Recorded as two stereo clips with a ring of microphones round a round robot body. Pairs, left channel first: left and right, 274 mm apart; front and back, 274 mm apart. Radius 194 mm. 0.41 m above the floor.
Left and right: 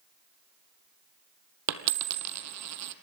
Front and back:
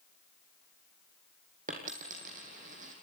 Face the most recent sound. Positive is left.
turn(degrees=-110)